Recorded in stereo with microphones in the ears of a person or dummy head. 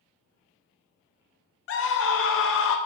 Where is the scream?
60° left (ahead or behind), 0.6 m.